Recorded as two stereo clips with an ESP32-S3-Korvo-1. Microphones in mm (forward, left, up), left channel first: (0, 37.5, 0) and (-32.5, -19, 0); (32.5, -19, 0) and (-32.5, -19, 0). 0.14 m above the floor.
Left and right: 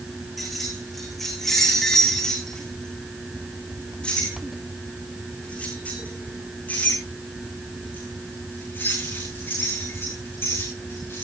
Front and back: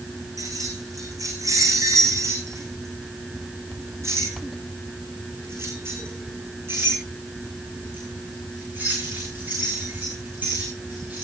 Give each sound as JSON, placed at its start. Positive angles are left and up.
{"t": 0.4, "sound": "keys jangling", "azimuth_deg": 150, "distance_m": 7.0}